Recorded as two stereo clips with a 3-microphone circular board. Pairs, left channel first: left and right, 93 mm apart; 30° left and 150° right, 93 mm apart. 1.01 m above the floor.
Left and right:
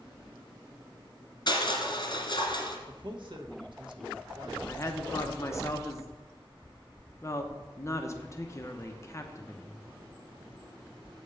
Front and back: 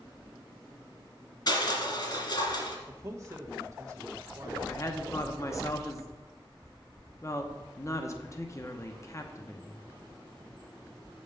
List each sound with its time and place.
1.5 s crushing: 60° left, 2 m
2.9 s a man speaking: 100° right, 1.2 m
4.7 s a woman speaking: 55° left, 0.8 m